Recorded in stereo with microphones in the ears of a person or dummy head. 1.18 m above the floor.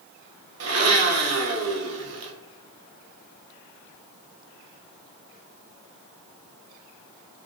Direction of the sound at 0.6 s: 80° right.